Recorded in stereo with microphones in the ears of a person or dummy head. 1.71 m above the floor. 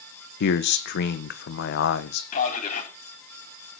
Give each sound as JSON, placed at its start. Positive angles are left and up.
{"t": 0.4, "sound": "a man speaking", "side_deg": 60, "distance_m": 1.4}
{"t": 2.3, "sound": "a man speaking", "side_deg": 40, "distance_m": 4.0}